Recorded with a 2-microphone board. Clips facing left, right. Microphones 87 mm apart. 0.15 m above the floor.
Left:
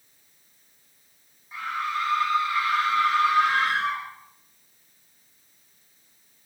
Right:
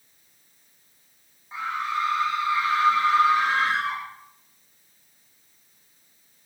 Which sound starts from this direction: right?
A scream, at 1.5 s.